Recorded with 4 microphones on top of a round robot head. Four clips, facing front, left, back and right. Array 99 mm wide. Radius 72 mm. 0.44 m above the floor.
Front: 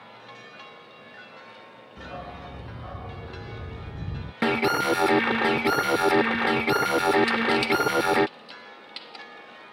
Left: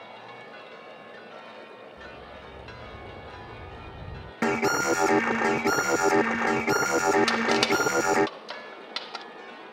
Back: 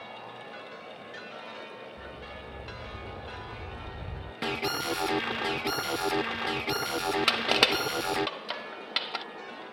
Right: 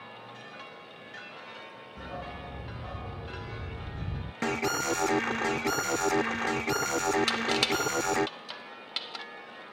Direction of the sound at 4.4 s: 40° left.